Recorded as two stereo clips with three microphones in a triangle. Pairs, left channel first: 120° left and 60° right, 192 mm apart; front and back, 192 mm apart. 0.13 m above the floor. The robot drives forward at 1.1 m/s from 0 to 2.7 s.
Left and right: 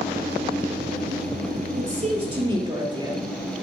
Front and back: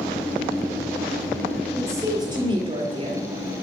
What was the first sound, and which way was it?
A woman speaking, 105° right.